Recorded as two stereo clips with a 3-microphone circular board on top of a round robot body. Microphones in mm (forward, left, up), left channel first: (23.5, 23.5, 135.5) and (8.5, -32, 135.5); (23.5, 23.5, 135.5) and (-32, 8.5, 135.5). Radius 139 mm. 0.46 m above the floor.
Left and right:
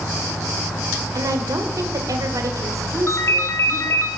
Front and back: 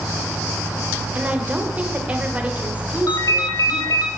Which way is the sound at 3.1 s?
35° left.